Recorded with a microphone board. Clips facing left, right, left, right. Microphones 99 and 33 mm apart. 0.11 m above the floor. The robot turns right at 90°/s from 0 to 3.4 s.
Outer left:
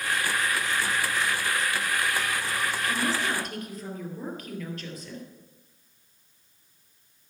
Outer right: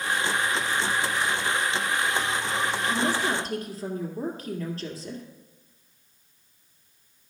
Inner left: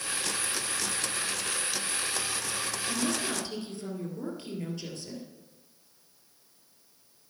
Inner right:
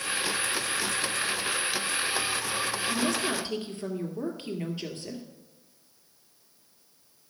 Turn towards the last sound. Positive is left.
turn(degrees=-140)